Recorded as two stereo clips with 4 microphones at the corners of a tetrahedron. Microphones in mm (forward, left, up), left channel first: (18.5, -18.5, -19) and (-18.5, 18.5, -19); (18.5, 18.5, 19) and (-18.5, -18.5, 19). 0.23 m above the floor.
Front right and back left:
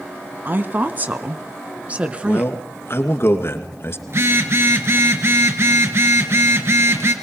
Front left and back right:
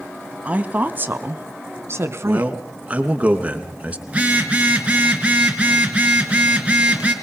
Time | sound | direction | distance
0.5 | a woman speaking | 170° left | 1.5 m
2.2 | a man speaking | 75° right | 3 m
4.1 | a phone buzzing | 160° left | 3 m